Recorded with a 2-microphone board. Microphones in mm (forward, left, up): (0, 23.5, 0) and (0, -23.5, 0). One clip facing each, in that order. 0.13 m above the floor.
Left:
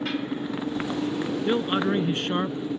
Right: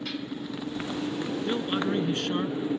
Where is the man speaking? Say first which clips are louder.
Left 5 dB; 30° left (ahead or behind).